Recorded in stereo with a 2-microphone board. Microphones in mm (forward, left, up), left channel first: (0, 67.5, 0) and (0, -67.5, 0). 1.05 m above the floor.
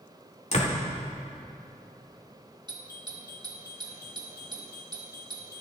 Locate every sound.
0.5 s a door slam: 55° left (ahead or behind), 2.0 m
2.7 s a doorbell: 35° right (ahead or behind), 1.8 m